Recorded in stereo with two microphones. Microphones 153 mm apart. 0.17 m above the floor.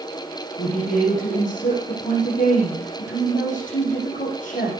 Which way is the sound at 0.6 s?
55° left (ahead or behind).